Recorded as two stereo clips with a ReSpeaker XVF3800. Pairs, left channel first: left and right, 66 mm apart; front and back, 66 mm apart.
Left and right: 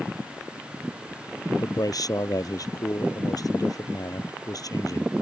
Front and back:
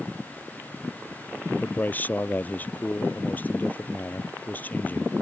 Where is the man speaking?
65° left.